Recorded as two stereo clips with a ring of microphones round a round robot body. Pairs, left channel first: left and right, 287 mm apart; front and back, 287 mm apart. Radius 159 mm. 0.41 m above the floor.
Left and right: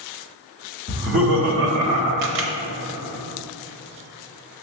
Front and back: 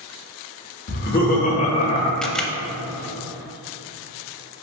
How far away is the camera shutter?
About 0.9 m.